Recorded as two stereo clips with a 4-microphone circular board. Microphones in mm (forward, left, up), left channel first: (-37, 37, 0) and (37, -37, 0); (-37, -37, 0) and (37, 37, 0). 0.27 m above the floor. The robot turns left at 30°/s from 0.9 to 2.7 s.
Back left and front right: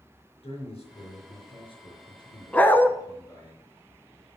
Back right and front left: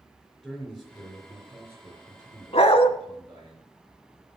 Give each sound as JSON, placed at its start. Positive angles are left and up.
{"t": 0.4, "sound": "a man speaking", "azimuth_deg": 140, "distance_m": 5.0}
{"t": 2.5, "sound": "a dog barking", "azimuth_deg": -150, "distance_m": 0.8}